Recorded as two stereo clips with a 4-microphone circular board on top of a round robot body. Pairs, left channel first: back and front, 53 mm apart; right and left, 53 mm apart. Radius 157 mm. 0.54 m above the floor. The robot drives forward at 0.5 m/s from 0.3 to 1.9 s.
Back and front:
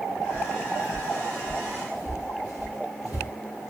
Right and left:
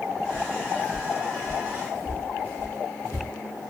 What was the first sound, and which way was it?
Footsteps, 35° left.